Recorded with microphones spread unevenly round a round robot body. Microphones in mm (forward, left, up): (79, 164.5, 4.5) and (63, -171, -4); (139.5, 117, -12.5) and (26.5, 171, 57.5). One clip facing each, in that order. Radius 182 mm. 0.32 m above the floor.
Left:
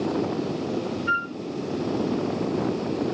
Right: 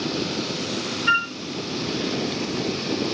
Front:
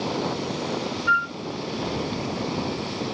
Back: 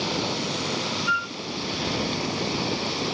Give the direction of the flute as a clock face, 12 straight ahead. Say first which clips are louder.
Left 1 dB, front 3 dB; 4 o'clock.